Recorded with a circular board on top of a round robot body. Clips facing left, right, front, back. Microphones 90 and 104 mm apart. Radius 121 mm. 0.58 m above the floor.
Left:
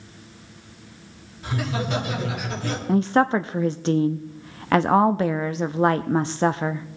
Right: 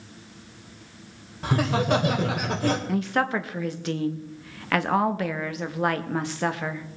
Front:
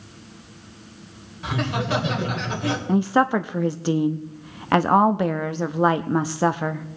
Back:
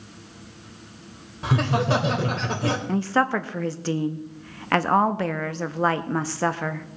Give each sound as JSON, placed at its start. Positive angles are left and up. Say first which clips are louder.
{"t": 1.4, "sound": "laughter", "louder": "right 4 dB, back 3 dB", "azimuth_deg": -130, "distance_m": 3.0}
{"t": 2.9, "sound": "a woman speaking", "louder": "left 6 dB, front 5 dB", "azimuth_deg": 60, "distance_m": 0.6}